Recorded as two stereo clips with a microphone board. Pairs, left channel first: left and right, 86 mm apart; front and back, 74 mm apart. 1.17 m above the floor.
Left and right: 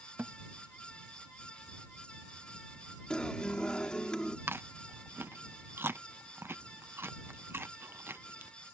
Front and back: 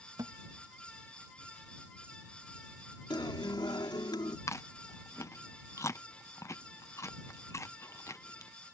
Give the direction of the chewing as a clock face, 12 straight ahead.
1 o'clock.